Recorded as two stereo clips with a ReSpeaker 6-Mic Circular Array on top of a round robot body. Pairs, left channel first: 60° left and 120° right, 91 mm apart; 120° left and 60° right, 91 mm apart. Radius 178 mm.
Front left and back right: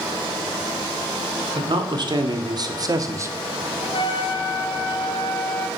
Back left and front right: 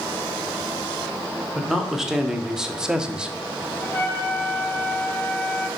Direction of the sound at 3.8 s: 55° left.